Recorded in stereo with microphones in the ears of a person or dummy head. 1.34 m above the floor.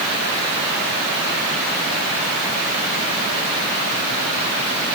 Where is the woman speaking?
I don't hear a woman speaking.